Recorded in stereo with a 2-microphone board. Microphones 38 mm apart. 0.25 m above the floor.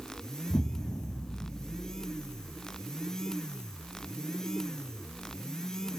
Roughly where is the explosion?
Left.